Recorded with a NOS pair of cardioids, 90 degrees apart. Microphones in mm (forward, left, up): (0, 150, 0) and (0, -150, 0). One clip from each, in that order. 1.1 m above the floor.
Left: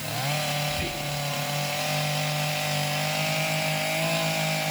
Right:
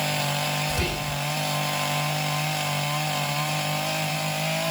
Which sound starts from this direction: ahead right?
Whispering, at 0.7 s.